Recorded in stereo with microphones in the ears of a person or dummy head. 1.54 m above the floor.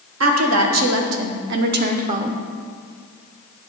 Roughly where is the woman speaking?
Right.